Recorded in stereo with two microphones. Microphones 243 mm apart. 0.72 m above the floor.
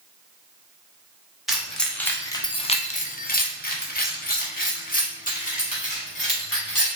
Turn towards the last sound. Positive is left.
turn(degrees=30)  # may be behind; listen again after turning